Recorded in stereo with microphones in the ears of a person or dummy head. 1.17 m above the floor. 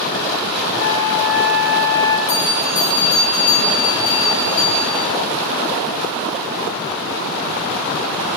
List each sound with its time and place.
0.8 s a flute: 60° left (ahead or behind), 1.8 m
2.3 s a bell: 85° left, 6 m